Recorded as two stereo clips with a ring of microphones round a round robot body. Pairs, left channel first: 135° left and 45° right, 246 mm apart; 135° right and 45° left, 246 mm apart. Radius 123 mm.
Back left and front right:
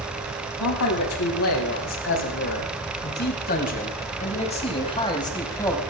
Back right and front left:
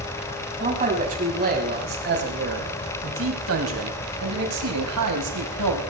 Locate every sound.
0.6 s a man speaking: 110° left, 6 m; by 5.8 s 55° left, 5.5 m